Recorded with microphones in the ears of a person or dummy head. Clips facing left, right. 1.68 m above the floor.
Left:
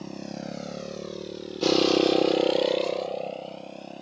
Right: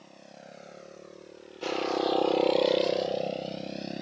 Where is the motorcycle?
65° left (ahead or behind); by 4.0 s 25° right (ahead or behind).